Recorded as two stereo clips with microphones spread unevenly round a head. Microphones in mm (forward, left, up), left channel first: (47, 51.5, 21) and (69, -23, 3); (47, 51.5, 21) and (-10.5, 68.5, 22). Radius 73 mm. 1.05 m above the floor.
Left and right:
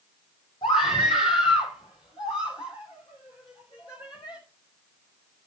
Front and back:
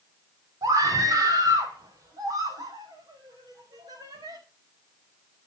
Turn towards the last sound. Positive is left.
turn(degrees=165)